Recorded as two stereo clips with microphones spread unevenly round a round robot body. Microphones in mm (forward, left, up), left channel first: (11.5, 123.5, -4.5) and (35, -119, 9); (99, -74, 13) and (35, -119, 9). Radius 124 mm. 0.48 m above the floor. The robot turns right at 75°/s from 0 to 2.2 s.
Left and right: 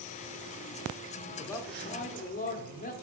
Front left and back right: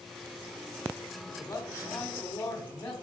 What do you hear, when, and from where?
1.3 s a man speaking: 15° left, 1.4 m; by 2.9 s 85° left, 1.4 m